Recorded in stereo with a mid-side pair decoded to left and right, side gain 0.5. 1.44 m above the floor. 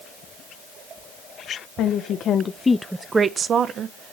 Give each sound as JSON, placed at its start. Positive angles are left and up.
{"t": 1.8, "sound": "a woman speaking", "azimuth_deg": 70, "distance_m": 1.6}